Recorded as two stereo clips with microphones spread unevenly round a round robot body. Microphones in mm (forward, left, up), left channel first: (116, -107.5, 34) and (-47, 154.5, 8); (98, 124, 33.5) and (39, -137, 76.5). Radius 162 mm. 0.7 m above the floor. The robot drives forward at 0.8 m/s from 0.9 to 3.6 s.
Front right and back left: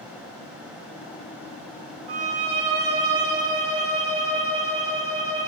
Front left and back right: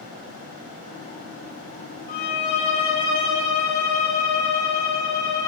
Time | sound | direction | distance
2.1 | a violin | 145° left | 2.5 m